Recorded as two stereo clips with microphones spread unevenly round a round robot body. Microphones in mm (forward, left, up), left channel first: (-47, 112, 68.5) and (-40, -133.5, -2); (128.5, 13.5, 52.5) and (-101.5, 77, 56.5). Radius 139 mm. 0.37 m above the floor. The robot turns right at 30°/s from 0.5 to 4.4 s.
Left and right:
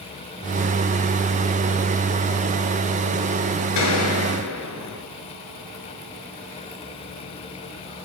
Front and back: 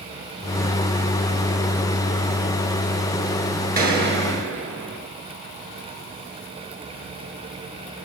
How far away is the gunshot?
About 7 m.